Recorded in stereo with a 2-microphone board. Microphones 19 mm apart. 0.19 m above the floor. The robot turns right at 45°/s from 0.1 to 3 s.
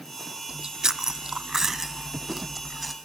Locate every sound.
0.5 s chewing: 30° right (ahead or behind), 0.6 m; by 3.0 s 5° left (ahead or behind), 0.6 m